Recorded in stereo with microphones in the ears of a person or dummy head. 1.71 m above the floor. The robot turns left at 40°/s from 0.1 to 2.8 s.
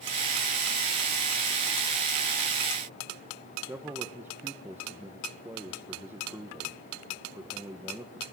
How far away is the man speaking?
About 1.5 m.